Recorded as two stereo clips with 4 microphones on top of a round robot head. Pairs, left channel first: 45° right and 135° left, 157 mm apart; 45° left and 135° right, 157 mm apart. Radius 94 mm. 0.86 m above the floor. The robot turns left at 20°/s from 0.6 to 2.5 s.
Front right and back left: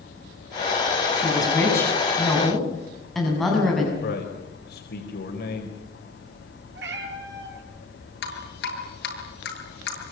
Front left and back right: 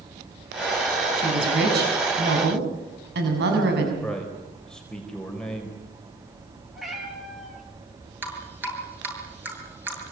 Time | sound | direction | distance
1.1 | a woman speaking | 110° right | 6.5 m
4.0 | a man speaking | 40° right | 4 m
6.8 | a cat meowing | 140° left | 6 m
8.2 | dripping | 55° right | 8 m